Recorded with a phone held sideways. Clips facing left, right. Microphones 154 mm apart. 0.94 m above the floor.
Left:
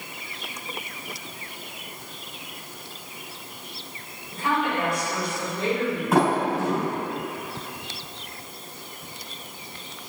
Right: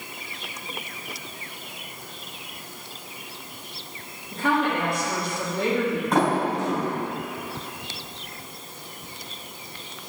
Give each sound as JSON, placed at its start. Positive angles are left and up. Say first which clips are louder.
{"t": 4.3, "sound": "a woman speaking", "louder": "right 2 dB", "side_deg": -60, "distance_m": 3.0}
{"t": 6.1, "sound": "a sliding door", "louder": "left 2 dB", "side_deg": 5, "distance_m": 3.0}